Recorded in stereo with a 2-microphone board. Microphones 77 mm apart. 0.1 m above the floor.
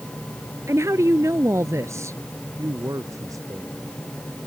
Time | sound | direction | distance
0.7 | a woman speaking | 40° right (ahead or behind) | ?
2.6 | a man speaking | 45° right (ahead or behind) | ?